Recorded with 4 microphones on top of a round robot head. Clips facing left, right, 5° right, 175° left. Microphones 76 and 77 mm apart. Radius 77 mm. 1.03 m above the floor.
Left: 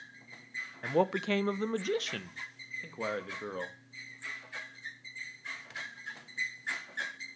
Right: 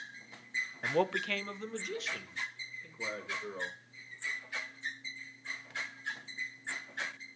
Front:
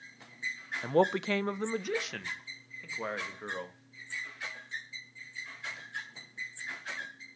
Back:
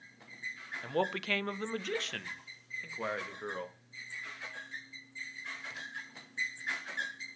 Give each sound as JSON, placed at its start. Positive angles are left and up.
{"t": 0.8, "sound": "a man speaking", "azimuth_deg": 0, "distance_m": 0.5}